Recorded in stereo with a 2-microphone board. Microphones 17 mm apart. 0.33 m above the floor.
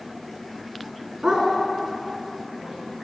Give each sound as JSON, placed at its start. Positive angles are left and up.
{"t": 1.2, "sound": "a dog barking", "side_deg": -55, "distance_m": 1.8}